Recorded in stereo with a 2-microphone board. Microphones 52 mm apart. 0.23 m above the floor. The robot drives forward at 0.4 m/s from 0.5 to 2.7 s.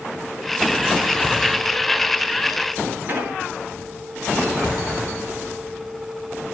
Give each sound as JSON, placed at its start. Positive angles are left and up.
{"t": 3.1, "sound": "an explosion", "side_deg": -40, "distance_m": 2.0}